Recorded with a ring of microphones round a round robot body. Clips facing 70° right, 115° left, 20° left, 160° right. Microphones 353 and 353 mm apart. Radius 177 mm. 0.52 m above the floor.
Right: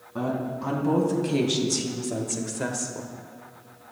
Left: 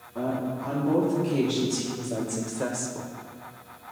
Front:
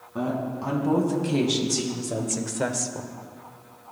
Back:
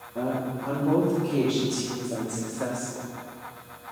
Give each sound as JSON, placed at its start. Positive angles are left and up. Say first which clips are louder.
{"t": 0.1, "sound": "a woman speaking", "louder": "even, front 1 dB", "azimuth_deg": -30, "distance_m": 4.5}